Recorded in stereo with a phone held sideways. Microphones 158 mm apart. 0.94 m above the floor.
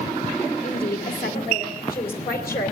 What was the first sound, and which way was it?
A woman speaking, 80° left.